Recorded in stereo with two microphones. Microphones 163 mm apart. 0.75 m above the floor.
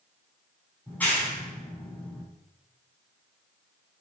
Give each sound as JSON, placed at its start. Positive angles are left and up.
{"t": 0.9, "sound": "a clap", "side_deg": 10, "distance_m": 4.5}